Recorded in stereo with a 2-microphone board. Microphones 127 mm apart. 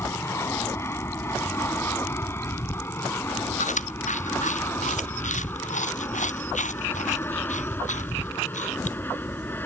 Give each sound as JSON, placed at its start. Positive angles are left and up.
{"t": 0.0, "sound": "an aircraft", "side_deg": 20}
{"t": 3.6, "sound": "chewing", "side_deg": 70}